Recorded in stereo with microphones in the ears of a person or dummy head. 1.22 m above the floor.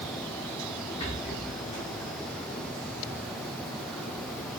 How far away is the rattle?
About 2 m.